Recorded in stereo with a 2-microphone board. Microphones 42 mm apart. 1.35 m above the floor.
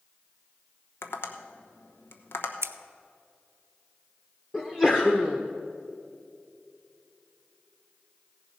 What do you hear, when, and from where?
1.0 s tapping: 60° left (ahead or behind), 1.0 m
2.6 s scissors: 80° right, 0.5 m
4.5 s a sneeze: 25° left (ahead or behind), 0.9 m